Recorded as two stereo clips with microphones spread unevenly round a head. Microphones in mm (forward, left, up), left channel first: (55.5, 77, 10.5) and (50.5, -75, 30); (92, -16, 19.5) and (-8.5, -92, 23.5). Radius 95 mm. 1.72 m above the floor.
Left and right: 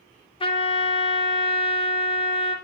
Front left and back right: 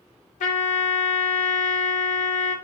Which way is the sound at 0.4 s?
35° left.